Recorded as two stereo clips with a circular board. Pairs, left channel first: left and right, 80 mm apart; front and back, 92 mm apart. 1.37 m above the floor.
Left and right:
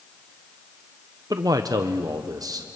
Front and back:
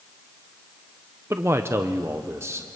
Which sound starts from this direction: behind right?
A man speaking, at 1.3 s.